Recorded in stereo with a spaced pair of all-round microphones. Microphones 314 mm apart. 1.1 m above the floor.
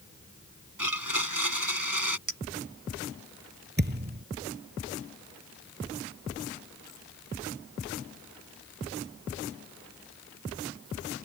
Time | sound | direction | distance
0.8 | a blender | 80° right | ?
2.3 | a clink | 65° right (ahead or behind) | ?
3.8 | a thud | 30° right (ahead or behind) | ?